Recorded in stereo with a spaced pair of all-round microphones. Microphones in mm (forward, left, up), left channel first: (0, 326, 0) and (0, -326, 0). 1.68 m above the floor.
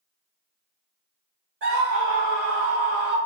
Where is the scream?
65° right (ahead or behind), 1.2 m; by 3.2 s 70° right (ahead or behind), 1.0 m.